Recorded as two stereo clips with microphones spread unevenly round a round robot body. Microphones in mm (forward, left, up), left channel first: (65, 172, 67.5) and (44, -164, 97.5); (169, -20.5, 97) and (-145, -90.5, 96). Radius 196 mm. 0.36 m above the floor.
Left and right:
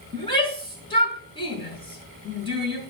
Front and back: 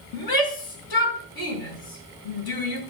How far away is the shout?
About 4.5 m.